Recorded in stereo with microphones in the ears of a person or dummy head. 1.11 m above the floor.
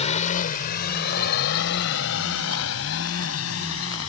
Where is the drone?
40° left (ahead or behind); by 4.1 s 80° left.